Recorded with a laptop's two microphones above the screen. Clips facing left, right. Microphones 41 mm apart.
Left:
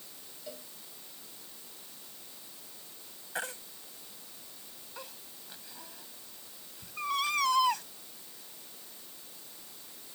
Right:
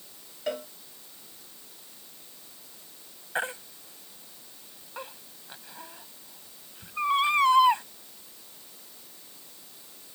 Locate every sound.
0.5 s a cowbell: 60° right (ahead or behind)
3.4 s a baby crying: 25° right (ahead or behind)